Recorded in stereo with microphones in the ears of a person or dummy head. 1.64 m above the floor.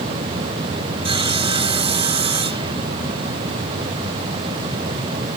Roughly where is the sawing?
Right.